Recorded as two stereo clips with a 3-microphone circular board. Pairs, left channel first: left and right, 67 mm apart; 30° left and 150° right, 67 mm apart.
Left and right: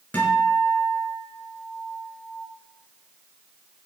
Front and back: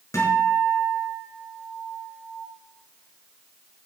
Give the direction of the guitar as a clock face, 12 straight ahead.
11 o'clock.